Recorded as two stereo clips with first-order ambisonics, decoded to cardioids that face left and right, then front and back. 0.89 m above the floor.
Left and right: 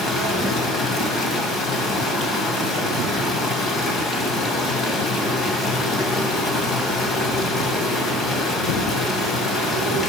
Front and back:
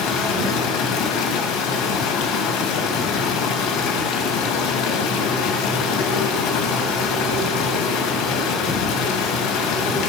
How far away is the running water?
About 2 m.